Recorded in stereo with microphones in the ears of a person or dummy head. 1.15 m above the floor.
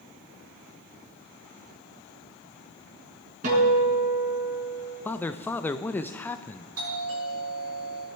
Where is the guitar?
50° right (ahead or behind), 5 m.